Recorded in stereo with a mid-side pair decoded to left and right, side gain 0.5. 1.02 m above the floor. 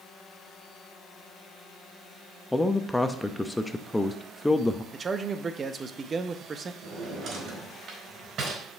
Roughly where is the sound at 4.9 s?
Ahead right.